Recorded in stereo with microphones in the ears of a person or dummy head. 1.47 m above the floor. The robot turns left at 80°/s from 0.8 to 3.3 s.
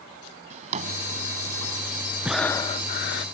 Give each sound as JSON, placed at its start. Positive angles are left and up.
{"t": 0.5, "sound": "a drawer", "side_deg": -40}
{"t": 2.2, "sound": "breathing", "azimuth_deg": -175}